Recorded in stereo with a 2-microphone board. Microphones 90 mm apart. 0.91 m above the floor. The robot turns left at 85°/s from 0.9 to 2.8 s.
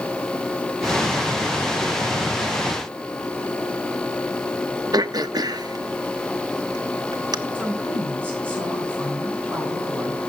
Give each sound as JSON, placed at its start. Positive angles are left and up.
{"t": 4.9, "sound": "throat clearing", "side_deg": -45, "distance_m": 0.7}
{"t": 7.5, "sound": "a woman speaking", "side_deg": -25, "distance_m": 7.5}